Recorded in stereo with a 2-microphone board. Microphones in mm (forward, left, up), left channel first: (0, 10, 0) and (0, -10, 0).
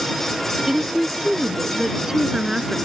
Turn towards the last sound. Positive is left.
turn(degrees=-25)  # may be behind; listen again after turning